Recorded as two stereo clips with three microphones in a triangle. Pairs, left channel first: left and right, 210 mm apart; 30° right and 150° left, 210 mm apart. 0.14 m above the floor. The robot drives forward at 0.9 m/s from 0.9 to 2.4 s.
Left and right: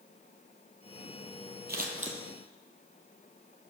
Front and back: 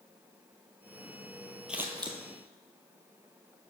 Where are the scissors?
125° right, 0.7 m; by 2.2 s 145° right, 1.0 m.